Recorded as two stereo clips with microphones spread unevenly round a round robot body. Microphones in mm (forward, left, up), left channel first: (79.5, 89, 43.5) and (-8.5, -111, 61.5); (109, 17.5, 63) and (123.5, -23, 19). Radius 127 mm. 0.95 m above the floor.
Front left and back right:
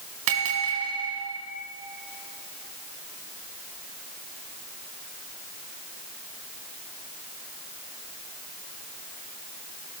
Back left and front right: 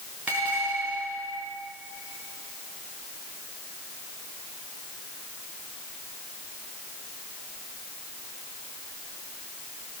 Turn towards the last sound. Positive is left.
turn(degrees=-150)